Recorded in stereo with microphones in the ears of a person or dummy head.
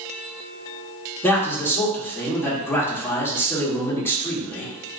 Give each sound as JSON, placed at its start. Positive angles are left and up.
{"t": 1.2, "sound": "a man speaking", "side_deg": 20, "distance_m": 1.2}